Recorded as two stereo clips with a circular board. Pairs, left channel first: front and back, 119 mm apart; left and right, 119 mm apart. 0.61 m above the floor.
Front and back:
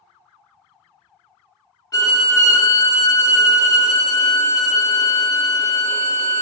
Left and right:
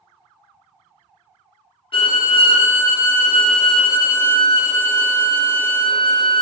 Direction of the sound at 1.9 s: 55° left.